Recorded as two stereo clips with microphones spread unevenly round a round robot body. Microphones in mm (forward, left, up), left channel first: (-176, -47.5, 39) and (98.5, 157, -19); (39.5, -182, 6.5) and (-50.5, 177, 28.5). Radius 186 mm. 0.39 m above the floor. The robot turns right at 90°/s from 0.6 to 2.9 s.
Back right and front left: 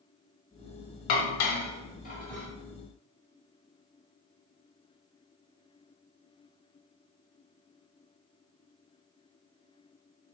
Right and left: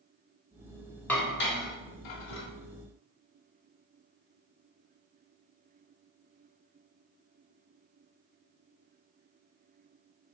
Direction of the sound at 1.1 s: 160° right.